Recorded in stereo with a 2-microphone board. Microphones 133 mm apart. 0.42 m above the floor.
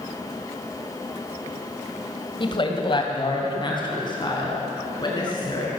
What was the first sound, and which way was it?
A woman speaking, 40° left (ahead or behind).